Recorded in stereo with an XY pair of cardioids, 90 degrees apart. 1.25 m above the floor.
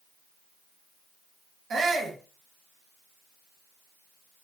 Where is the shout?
60° right, 1.4 m.